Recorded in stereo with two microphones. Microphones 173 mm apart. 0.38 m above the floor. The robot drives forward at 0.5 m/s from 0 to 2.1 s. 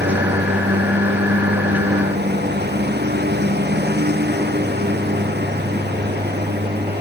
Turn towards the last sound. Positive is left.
turn(degrees=-75)  # may be behind; listen again after turning